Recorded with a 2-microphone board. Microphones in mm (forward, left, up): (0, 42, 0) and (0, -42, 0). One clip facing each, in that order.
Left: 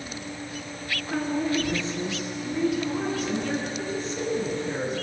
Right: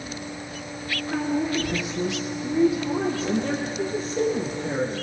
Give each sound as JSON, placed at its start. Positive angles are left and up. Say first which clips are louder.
{"t": 1.1, "sound": "a woman speaking", "louder": "right 1 dB", "side_deg": 0, "distance_m": 2.5}